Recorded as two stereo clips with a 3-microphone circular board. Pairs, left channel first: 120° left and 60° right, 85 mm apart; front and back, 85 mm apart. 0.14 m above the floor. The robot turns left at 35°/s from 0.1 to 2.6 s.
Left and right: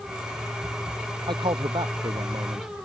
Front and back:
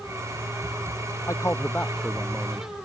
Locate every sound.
1.3 s a man speaking: 50° right; by 2.7 s 100° right